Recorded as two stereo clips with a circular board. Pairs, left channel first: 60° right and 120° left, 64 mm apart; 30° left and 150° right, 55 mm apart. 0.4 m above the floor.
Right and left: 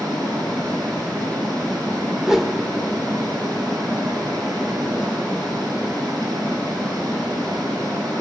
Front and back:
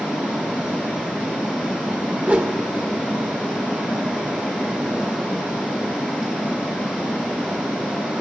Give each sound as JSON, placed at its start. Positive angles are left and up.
{"t": 0.0, "sound": "running water", "azimuth_deg": 135, "distance_m": 3.5}
{"t": 2.2, "sound": "a whoosh", "azimuth_deg": -165, "distance_m": 0.7}